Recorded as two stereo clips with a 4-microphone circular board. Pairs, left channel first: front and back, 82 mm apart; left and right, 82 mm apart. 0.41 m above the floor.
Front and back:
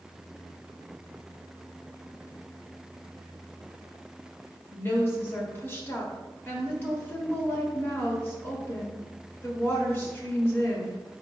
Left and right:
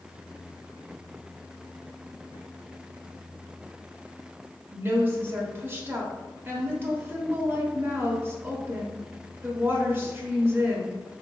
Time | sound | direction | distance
4.7 | a woman speaking | 45° right | 1.1 m